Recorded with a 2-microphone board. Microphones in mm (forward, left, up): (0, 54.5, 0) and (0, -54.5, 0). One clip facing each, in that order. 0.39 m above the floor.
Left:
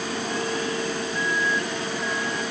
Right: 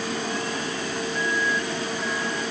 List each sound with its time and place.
Only background noise.